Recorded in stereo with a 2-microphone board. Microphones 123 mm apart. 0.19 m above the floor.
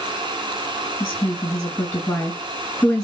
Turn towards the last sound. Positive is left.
turn(degrees=10)  # may be behind; listen again after turning